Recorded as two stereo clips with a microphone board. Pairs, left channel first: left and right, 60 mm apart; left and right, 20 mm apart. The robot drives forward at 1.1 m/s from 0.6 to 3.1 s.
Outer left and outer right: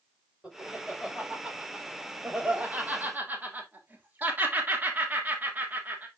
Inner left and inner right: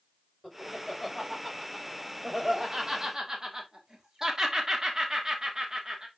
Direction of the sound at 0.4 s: 15° right (ahead or behind).